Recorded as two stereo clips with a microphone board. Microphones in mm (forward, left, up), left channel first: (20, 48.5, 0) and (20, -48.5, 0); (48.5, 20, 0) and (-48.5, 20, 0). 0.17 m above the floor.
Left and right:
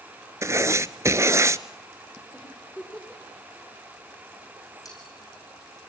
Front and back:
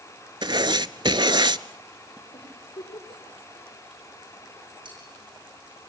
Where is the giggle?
15° left, 7 m.